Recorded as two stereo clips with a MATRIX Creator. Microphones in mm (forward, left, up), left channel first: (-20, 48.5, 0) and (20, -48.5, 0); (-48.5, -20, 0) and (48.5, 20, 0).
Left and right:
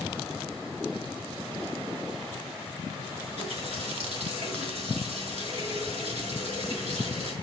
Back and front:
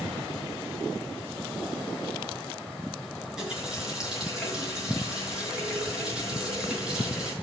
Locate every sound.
3.2 s a running tap: 60° right, 5.5 m